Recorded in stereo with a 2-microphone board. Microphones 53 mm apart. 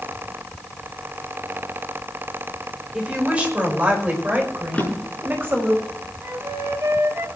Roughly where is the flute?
Right.